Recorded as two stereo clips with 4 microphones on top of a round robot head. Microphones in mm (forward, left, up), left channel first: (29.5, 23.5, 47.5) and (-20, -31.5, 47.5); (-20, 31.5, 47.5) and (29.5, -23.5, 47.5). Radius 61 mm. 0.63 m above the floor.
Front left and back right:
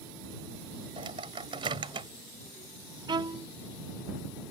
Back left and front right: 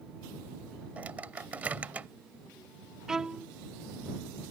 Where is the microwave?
120° right.